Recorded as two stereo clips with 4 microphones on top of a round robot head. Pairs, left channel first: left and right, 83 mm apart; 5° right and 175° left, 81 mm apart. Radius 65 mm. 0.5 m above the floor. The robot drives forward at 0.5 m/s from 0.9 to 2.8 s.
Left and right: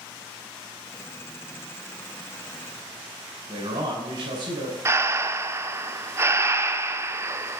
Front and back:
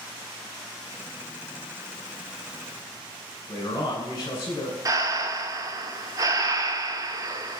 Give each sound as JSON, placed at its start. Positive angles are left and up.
{"t": 3.5, "sound": "a man speaking", "azimuth_deg": -60, "distance_m": 3.0}
{"t": 4.8, "sound": "breathing", "azimuth_deg": -145, "distance_m": 0.6}